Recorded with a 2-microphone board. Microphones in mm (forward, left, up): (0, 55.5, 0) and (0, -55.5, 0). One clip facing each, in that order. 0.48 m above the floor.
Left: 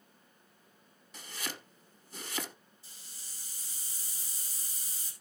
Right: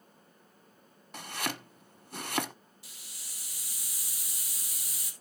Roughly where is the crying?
I don't hear crying.